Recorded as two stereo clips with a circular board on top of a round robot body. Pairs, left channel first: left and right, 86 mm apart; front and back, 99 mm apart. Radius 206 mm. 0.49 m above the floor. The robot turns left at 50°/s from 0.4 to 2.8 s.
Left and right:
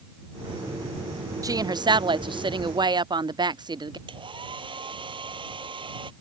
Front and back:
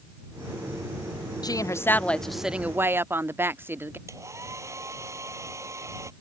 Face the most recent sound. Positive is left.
turn(degrees=-120)